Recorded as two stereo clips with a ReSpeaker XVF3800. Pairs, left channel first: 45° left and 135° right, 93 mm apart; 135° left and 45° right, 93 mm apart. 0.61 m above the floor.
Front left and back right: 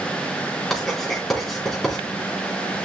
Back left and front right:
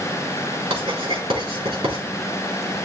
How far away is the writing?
About 4.5 m.